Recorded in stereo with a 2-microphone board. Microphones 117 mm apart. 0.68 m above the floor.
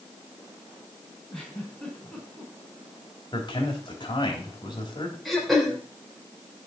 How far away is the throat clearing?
About 3.5 m.